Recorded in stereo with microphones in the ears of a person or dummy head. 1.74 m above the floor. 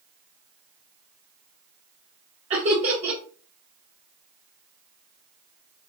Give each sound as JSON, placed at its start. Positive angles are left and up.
{"t": 2.5, "sound": "laughter", "side_deg": -30, "distance_m": 0.6}